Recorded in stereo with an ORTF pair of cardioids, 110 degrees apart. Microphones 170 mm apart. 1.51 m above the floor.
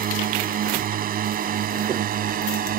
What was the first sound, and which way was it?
A drone, 55° right.